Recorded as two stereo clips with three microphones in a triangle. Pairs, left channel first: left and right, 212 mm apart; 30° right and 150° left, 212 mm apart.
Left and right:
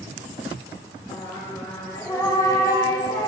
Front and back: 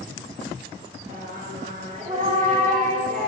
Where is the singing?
150° left, 0.8 m.